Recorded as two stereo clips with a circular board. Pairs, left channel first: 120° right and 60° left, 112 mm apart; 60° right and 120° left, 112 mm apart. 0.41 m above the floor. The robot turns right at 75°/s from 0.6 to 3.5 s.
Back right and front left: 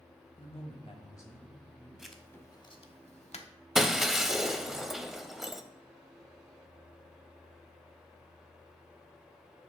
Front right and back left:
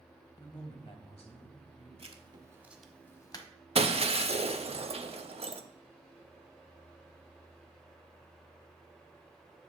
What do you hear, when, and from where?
0.4 s a woman speaking: 110° right, 1.8 m; by 1.9 s 10° right, 1.8 m
2.0 s writing: 145° left, 0.9 m; by 3.5 s 105° right, 0.9 m
3.8 s breaking glass: 145° left, 0.6 m